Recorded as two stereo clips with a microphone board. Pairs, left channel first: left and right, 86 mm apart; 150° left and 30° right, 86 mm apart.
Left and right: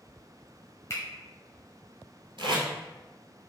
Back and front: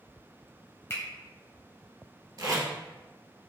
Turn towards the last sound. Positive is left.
turn(degrees=-70)